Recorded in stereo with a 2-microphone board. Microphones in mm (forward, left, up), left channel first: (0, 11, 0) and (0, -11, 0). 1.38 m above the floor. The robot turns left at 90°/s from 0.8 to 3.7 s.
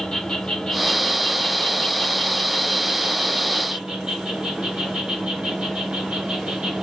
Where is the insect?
135° left, 1.6 m; by 6.8 s 125° right, 1.6 m.